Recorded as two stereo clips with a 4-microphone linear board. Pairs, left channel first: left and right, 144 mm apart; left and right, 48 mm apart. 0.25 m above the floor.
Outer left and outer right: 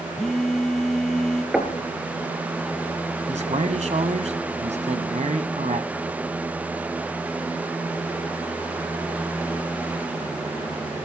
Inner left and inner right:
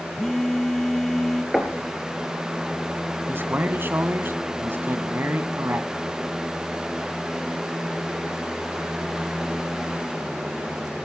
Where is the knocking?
5° right (ahead or behind), 2.5 m.